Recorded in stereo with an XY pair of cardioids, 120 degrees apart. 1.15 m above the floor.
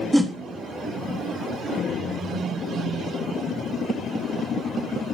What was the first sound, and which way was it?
A whoosh, 10° right.